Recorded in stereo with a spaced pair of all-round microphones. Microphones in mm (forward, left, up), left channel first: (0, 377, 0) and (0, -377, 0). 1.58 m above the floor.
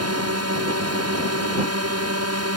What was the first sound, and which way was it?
A drone, 20° right (ahead or behind).